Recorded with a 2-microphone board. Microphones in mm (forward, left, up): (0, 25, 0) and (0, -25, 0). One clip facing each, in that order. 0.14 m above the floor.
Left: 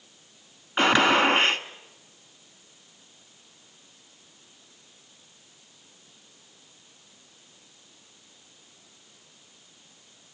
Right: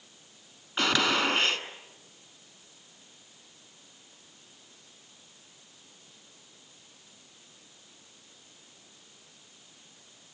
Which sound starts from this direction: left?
A gunshot, at 0.8 s.